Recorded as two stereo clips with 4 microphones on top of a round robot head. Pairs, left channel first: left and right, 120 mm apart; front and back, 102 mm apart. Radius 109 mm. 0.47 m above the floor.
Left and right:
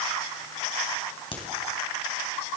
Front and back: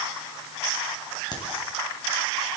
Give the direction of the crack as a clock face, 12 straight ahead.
10 o'clock.